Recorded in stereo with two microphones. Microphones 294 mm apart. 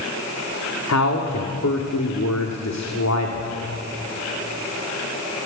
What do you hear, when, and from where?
0.9 s a man speaking: 65° left (ahead or behind), 2 m